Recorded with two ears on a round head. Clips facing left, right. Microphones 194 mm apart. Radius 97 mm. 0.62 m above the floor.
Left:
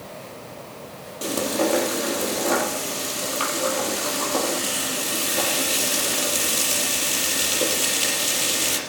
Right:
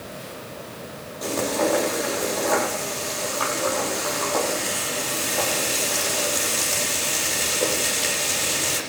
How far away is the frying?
About 5 m.